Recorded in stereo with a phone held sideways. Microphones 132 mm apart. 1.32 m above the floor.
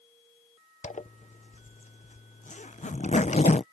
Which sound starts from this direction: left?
A zipper, at 0.8 s.